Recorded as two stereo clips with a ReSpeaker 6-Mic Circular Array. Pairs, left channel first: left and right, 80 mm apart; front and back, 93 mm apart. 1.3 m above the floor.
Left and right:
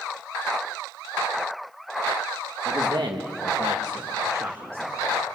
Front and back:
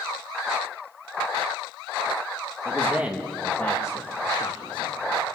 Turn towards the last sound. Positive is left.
turn(degrees=-25)